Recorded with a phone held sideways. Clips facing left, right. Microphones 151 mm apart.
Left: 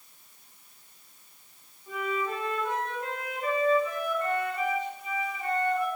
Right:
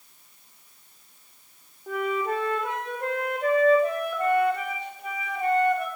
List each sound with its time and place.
1.9 s a flute: 60° right (ahead or behind), 1.9 m